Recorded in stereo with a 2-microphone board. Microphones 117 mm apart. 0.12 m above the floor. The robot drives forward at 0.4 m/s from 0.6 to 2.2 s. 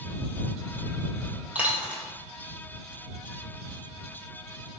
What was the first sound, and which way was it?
A dropped coin, 10° right (ahead or behind).